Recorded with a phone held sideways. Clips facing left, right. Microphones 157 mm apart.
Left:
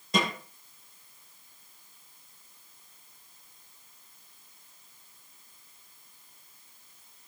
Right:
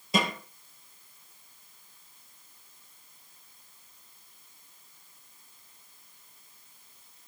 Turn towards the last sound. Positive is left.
turn(degrees=-5)  # may be behind; listen again after turning